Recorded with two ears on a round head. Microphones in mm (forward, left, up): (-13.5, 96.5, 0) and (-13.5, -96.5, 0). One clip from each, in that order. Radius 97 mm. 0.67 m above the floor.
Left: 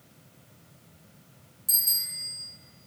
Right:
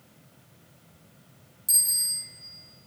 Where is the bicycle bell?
15° right (ahead or behind), 5.5 m.